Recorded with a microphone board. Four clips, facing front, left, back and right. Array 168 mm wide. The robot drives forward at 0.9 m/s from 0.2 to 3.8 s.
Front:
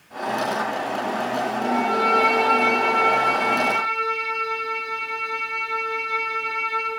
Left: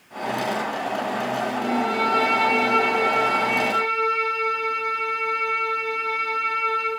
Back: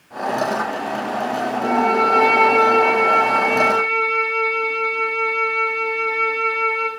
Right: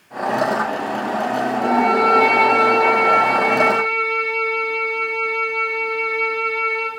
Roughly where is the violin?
Behind right.